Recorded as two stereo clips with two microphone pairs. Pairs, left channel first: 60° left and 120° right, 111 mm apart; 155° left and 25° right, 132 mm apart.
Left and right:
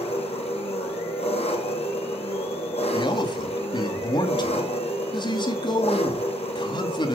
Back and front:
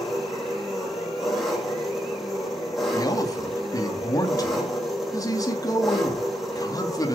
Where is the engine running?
65° left, 4 m.